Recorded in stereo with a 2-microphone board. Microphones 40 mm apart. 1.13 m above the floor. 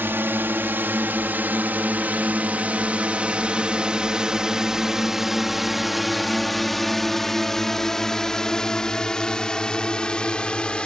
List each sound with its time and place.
0.0 s a drone: 65° right (ahead or behind); by 10.9 s 20° left (ahead or behind)